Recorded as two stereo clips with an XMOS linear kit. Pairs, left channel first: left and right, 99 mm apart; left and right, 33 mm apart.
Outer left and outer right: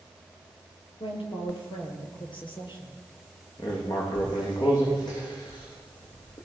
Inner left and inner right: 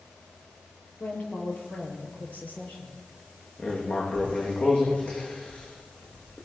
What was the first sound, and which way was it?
A woman speaking, 65° left (ahead or behind).